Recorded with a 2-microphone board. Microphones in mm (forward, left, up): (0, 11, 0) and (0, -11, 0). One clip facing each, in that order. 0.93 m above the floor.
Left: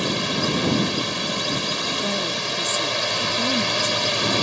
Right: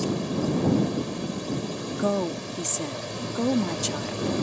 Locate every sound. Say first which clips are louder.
0.0 s a drone: left 4 dB; 70° left (ahead or behind)
1.9 s a woman speaking: left 3 dB; 30° right (ahead or behind)